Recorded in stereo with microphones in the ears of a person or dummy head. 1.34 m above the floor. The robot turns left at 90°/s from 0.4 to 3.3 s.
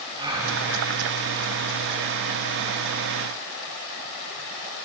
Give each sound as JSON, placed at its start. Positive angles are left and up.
{"t": 0.2, "sound": "a gasp", "side_deg": -25, "distance_m": 1.4}